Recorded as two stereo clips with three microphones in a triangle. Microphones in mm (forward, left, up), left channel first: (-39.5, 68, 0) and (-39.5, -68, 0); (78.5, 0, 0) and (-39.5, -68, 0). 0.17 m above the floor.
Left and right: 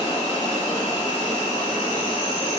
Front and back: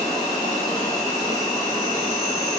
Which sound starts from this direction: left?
An insect, at 0.0 s.